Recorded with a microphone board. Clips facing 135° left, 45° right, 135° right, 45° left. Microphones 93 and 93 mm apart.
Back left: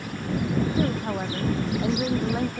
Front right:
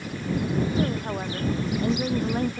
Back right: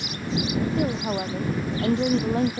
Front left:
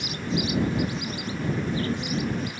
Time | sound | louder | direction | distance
0.8 | a woman speaking | back left 1 dB, back right 4 dB | 140° right | ?